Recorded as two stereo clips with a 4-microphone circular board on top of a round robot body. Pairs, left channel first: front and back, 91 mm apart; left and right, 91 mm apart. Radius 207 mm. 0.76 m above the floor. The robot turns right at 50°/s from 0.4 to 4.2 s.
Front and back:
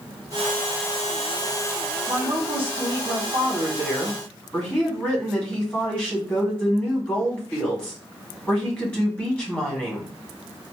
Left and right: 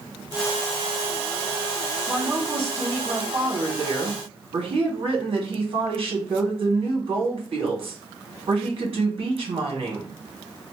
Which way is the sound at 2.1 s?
Straight behind.